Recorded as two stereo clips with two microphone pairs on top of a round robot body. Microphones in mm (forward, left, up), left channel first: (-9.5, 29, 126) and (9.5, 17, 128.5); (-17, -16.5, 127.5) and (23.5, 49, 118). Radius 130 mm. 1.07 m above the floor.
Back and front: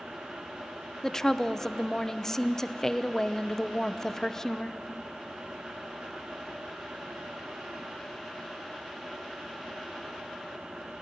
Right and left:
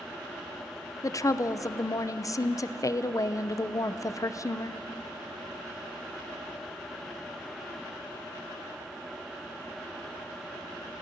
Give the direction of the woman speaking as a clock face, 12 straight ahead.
5 o'clock.